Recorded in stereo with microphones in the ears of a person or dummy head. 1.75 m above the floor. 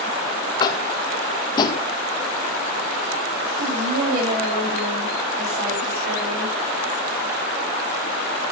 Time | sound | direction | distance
0.6 | tapping | 30° left (ahead or behind) | 1.6 m
3.6 | a woman speaking | 50° right (ahead or behind) | 9.5 m